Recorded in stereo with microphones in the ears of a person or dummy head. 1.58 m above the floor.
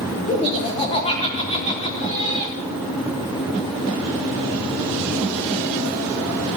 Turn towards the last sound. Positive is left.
turn(degrees=35)  # may be behind; listen again after turning